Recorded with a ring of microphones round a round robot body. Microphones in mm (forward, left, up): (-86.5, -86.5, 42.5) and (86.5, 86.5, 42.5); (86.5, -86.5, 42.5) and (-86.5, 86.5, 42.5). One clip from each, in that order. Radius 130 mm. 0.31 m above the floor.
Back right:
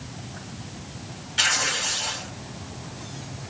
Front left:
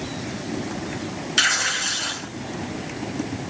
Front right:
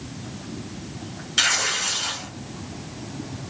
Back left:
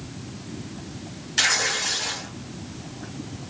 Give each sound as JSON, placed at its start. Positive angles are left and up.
{"t": 1.4, "sound": "tearing paper", "azimuth_deg": 35, "distance_m": 2.5}